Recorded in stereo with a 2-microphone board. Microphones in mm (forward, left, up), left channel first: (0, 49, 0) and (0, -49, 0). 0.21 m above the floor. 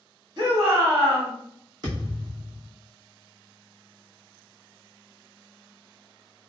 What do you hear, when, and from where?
0.4 s a shout: 45° right (ahead or behind), 1.8 m
1.8 s a thud: 45° right (ahead or behind), 1.5 m